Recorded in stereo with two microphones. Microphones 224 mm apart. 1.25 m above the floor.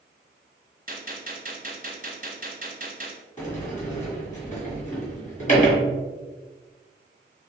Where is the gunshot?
40° right (ahead or behind), 1.0 m.